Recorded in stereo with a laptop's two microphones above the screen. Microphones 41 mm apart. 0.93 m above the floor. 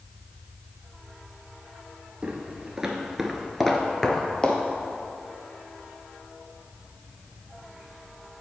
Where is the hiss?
I don't hear a hiss.